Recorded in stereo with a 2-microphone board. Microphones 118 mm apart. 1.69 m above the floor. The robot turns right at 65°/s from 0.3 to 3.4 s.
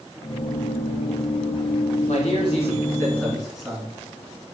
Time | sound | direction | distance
2.1 | a man speaking | 95° left | 3.5 m